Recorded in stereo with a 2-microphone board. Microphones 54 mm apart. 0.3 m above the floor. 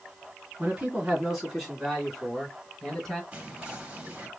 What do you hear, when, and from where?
0.6 s a man speaking: 20° right (ahead or behind), 2 m; by 3.2 s 5° left (ahead or behind), 3 m
3.3 s whispering: 20° right (ahead or behind), 2.0 m